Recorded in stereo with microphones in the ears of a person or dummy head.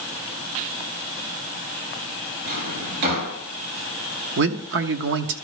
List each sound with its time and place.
2.5 s a drawer: 50° right (ahead or behind), 2.5 m
4.4 s a man speaking: 60° right (ahead or behind), 0.8 m